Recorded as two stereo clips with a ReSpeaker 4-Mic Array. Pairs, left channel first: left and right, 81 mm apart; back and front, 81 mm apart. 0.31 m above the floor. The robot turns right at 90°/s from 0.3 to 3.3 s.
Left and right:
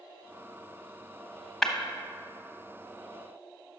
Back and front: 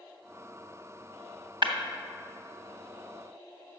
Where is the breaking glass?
5° left, 0.8 m; by 1.7 s 15° left, 0.8 m.